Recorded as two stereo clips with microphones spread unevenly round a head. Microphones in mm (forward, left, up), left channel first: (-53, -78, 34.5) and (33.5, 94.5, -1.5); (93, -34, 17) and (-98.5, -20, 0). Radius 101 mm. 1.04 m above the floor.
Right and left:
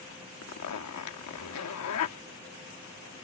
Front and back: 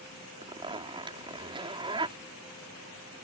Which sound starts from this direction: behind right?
A zipper, at 0.4 s.